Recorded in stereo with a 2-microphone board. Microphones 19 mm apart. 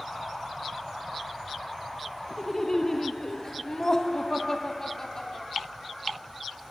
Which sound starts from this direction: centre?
Laughter, at 2.4 s.